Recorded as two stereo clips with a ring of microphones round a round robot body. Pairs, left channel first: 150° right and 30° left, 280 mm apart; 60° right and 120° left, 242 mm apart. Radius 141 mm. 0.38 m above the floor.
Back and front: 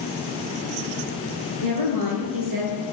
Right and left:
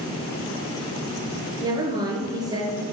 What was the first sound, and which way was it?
A woman speaking, 45° left.